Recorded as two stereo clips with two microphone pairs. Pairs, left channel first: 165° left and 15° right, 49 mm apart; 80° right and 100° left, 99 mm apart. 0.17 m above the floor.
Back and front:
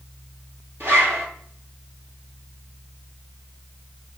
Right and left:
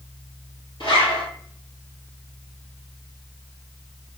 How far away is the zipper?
About 1.5 m.